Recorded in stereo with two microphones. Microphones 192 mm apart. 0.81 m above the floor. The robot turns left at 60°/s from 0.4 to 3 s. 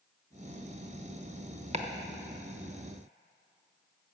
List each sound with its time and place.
1.7 s chopping: 35° right (ahead or behind), 0.9 m; by 1.9 s 45° right (ahead or behind), 0.9 m